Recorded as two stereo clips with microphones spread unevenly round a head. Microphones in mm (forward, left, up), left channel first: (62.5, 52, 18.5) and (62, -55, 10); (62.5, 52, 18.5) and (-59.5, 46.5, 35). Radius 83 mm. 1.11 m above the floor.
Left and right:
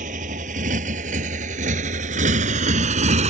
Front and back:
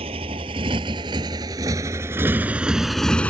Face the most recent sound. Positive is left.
turn(degrees=-80)